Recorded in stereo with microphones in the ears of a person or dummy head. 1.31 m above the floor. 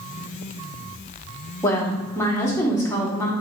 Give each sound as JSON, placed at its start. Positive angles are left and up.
{"t": 1.6, "sound": "a woman speaking", "side_deg": 15, "distance_m": 0.6}